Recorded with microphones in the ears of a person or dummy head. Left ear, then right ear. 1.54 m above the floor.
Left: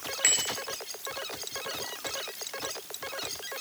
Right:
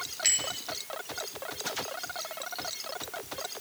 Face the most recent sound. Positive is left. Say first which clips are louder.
# left 2 dB
turn(degrees=30)  # may be behind; listen again after turning